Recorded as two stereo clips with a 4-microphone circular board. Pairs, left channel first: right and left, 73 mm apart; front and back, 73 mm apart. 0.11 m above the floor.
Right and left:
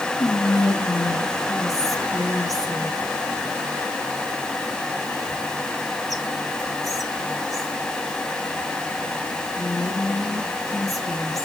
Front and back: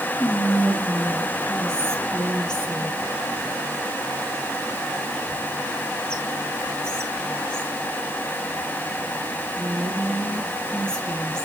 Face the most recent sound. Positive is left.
turn(degrees=-75)